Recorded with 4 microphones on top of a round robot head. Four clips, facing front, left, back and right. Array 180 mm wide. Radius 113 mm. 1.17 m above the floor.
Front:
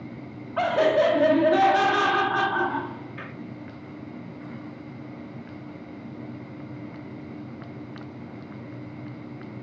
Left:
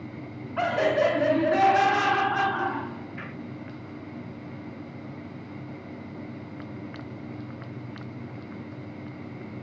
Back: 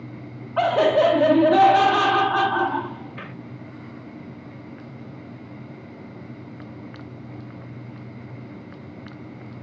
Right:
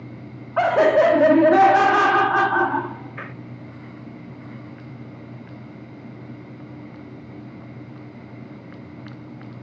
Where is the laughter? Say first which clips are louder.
Right 8 dB, back 3 dB; 115° right, 0.9 m.